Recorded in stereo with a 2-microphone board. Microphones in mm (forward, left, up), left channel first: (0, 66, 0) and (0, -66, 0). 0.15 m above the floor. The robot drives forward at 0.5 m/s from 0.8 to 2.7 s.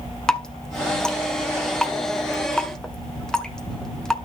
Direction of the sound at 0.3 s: 5° left (ahead or behind).